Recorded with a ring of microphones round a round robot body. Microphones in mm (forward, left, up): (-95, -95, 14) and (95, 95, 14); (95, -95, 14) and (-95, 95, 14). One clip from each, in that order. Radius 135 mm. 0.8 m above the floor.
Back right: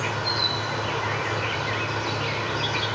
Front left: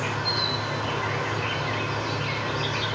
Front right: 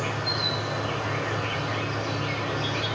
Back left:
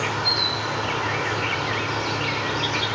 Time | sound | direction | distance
0.0 | an insect | 145° left | 0.7 m